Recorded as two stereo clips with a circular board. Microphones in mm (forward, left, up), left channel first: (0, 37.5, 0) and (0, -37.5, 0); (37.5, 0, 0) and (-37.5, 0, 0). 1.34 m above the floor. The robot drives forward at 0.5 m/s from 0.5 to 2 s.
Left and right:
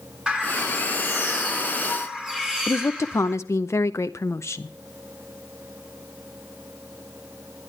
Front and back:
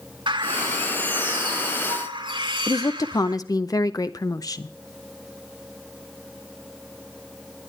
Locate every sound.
0.3 s a bird: 170° right, 1.8 m
2.7 s a woman speaking: 40° left, 0.6 m